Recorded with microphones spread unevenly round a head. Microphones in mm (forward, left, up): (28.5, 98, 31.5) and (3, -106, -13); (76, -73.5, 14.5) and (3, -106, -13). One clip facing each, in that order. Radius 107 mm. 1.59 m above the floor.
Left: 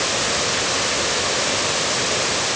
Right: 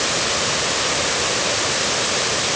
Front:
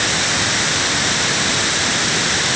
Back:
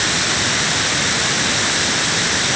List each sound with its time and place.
Only background noise.